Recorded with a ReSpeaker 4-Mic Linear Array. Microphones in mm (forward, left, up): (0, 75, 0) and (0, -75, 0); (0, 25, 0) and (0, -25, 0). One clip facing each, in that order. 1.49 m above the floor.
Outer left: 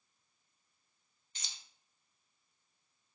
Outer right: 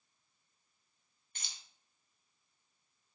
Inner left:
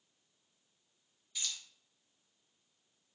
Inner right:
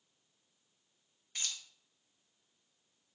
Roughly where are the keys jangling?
Right.